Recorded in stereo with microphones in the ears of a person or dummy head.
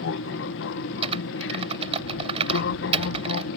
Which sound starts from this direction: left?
An aircraft, at 0.0 s.